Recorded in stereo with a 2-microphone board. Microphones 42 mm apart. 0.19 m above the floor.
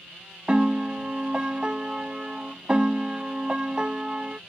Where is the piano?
25° right (ahead or behind).